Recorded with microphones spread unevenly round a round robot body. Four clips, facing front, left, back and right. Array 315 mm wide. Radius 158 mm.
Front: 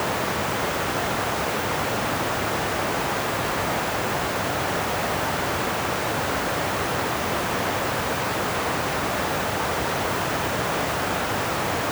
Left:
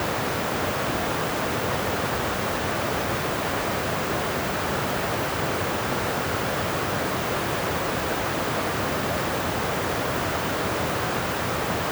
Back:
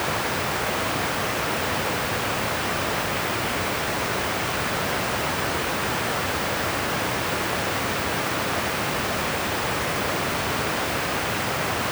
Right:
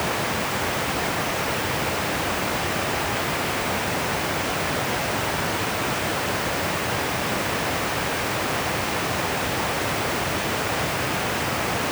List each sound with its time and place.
Only background noise.